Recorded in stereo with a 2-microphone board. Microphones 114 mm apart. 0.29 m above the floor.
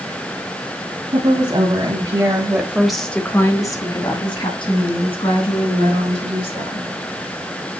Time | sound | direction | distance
1.1 | a woman speaking | 45° right (ahead or behind) | 2.5 m